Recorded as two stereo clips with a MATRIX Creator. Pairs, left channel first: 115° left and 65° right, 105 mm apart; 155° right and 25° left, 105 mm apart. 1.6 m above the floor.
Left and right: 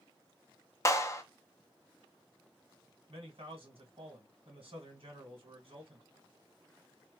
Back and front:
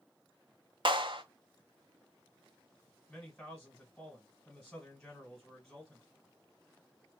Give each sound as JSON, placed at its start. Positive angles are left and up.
{"t": 0.8, "sound": "a clap", "azimuth_deg": 55, "distance_m": 0.5}
{"t": 3.1, "sound": "a man speaking", "azimuth_deg": -80, "distance_m": 1.6}